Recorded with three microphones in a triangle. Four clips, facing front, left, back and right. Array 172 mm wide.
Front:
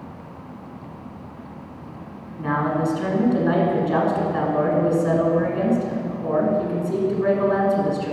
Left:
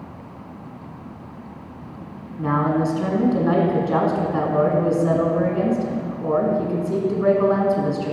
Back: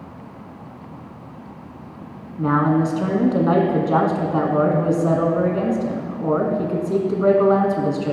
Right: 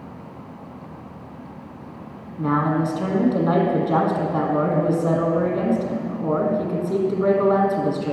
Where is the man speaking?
165° right, 1.5 m.